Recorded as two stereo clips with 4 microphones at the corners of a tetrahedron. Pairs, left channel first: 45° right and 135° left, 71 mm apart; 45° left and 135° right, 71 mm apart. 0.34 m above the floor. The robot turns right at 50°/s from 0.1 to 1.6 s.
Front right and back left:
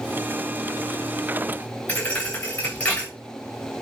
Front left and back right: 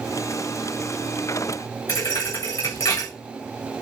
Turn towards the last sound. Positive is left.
turn(degrees=25)